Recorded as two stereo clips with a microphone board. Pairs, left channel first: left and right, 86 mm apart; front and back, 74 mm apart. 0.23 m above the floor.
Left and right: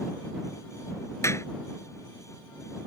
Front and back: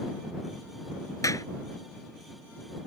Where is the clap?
35° left.